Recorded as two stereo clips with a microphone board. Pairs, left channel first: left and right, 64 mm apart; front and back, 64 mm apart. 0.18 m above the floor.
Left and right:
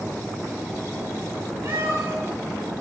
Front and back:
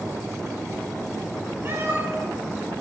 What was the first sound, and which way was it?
A cat meowing, 125° right.